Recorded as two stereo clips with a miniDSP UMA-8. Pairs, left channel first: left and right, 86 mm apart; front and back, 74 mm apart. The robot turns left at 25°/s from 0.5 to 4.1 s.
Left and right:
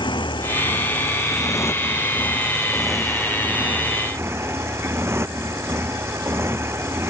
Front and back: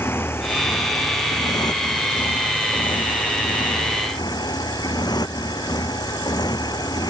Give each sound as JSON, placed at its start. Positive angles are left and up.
{"t": 0.0, "sound": "a motorcycle", "azimuth_deg": 60}